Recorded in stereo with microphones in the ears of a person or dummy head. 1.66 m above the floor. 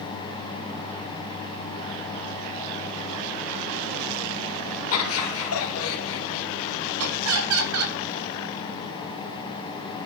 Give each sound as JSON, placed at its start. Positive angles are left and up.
{"t": 4.9, "sound": "laughter", "side_deg": 75, "distance_m": 2.0}
{"t": 7.0, "sound": "laughter", "side_deg": -85, "distance_m": 5.0}